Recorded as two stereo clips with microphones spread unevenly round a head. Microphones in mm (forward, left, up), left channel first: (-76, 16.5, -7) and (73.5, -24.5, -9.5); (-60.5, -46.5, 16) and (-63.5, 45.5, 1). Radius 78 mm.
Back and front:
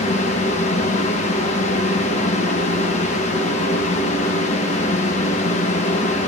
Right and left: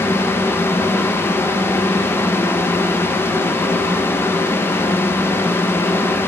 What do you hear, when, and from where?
0.0 s a fan: 155° right, 1.1 m